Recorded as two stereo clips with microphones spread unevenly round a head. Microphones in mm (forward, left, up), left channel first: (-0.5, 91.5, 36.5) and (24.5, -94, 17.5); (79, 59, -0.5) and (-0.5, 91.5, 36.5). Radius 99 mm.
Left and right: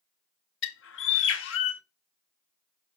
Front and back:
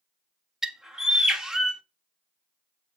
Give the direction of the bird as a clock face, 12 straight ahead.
9 o'clock.